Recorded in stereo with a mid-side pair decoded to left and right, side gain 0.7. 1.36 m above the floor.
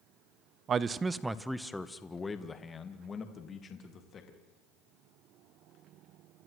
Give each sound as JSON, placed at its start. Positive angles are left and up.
{"t": 0.7, "sound": "a man speaking", "azimuth_deg": -35, "distance_m": 0.7}